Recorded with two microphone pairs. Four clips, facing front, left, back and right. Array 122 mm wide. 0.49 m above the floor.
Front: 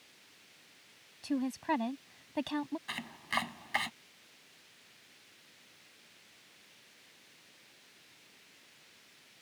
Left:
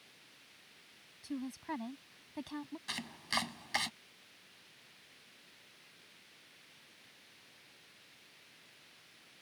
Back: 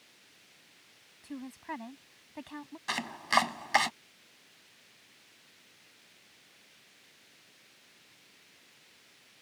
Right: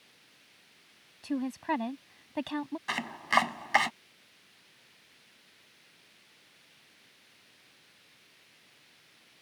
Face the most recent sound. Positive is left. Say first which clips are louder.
# right 13 dB, back 8 dB
turn(degrees=-130)